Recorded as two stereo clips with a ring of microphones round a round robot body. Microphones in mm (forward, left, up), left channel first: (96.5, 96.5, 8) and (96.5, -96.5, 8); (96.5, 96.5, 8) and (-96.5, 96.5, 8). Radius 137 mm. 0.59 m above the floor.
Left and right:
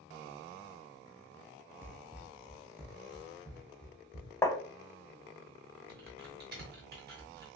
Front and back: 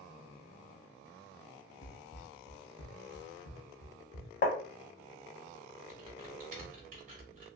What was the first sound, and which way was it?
Running footsteps, 20° right.